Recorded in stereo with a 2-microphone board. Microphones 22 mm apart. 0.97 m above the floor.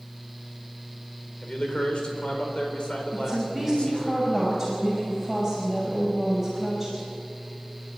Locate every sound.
1.4 s a man speaking: 50° left (ahead or behind), 4 m
3.1 s a woman speaking: 10° left (ahead or behind), 5.5 m